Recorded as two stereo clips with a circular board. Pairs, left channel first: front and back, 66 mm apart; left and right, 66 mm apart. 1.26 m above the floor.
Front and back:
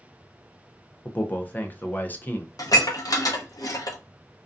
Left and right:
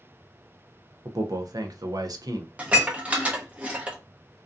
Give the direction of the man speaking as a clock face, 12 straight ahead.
2 o'clock.